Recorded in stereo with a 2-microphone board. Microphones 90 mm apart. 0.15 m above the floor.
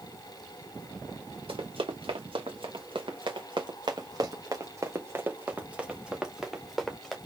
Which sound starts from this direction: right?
Running footsteps, at 1.5 s.